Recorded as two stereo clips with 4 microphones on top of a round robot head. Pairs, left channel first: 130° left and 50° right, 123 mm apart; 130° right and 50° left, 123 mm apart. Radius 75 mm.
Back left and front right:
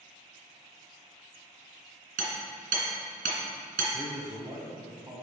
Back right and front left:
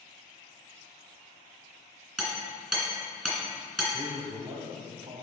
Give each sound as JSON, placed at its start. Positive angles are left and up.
{"t": 2.2, "sound": "hammering", "azimuth_deg": -40, "distance_m": 2.5}
{"t": 3.9, "sound": "a man speaking", "azimuth_deg": 0, "distance_m": 1.2}